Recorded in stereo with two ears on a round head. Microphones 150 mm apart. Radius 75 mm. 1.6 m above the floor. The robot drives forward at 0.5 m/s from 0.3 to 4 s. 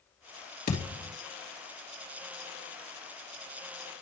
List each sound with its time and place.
0.7 s a thud: 45° left (ahead or behind), 3 m